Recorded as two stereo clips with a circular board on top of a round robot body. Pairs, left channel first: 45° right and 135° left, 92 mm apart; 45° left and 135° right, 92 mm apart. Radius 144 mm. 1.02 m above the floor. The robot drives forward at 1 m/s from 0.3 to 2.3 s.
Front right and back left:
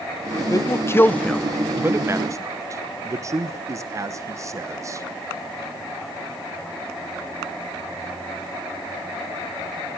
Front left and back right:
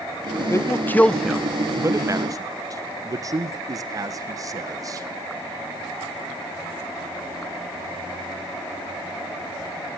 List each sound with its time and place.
0.5 s a man speaking: 5° right, 1.1 m; by 5.1 s 175° right, 1.2 m